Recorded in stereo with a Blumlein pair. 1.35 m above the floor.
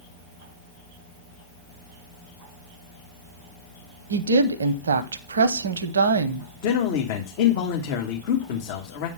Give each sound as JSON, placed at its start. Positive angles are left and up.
{"t": 4.1, "sound": "a woman speaking", "azimuth_deg": -70, "distance_m": 0.8}
{"t": 6.6, "sound": "a man speaking", "azimuth_deg": 50, "distance_m": 1.4}